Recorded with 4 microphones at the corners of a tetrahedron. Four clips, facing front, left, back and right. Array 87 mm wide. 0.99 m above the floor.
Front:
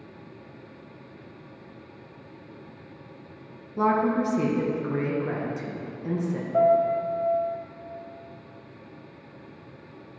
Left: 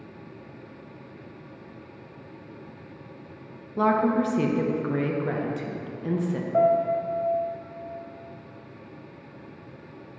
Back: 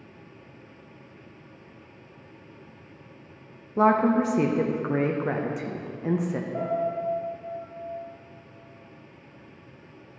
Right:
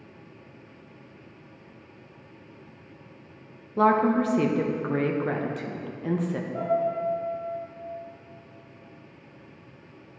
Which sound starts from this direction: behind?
A woman speaking, at 3.8 s.